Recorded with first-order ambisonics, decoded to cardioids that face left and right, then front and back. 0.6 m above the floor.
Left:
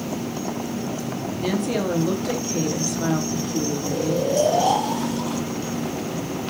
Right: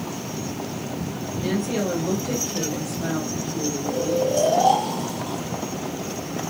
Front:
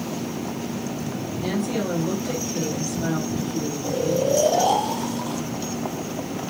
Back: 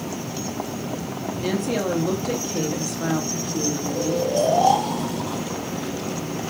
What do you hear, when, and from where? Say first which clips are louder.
1.4 s a woman speaking: left 1 dB, back 2 dB; 125° left, 0.6 m
3.8 s snoring: right 2 dB, front 5 dB; 25° left, 1.5 m